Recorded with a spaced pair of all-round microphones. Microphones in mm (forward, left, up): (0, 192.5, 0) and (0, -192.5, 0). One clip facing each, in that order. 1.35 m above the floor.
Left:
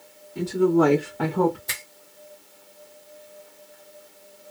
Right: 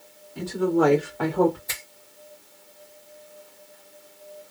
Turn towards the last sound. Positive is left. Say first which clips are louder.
# left 1 dB
turn(degrees=80)